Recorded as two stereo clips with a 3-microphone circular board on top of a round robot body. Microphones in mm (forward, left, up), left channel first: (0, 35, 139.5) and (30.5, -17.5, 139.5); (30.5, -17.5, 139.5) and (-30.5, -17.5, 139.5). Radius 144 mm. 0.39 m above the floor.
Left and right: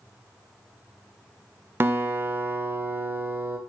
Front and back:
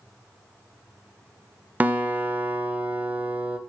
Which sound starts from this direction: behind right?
A guitar, at 1.8 s.